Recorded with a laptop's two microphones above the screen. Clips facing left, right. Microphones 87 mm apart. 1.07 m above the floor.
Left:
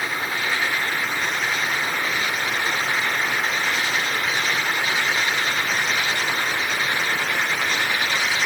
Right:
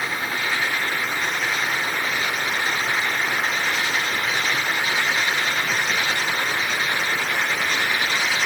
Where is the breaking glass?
No breaking glass in this recording.